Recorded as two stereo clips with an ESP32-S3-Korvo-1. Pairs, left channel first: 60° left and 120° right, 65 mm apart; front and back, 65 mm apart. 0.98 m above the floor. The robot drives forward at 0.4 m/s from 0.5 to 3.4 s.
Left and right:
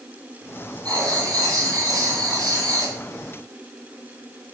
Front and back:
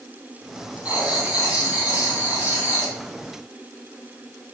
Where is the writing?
110° right, 4.5 m; by 3.0 s 120° right, 4.5 m.